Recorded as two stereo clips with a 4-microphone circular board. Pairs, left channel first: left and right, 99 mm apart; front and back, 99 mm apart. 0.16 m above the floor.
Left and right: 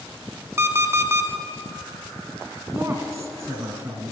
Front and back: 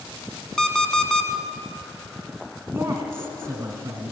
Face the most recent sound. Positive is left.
turn(degrees=-130)